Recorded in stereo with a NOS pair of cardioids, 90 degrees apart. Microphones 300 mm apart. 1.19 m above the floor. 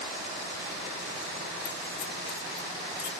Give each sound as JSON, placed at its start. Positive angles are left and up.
{"t": 1.6, "sound": "keys jangling", "azimuth_deg": 55, "distance_m": 3.5}